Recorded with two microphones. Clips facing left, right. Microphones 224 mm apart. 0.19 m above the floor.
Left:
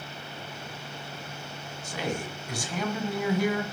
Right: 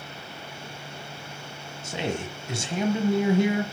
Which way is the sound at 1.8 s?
25° right (ahead or behind).